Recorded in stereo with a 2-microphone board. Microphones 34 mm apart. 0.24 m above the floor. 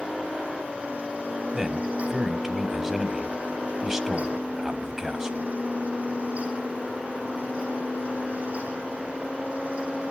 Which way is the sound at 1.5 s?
15° right (ahead or behind).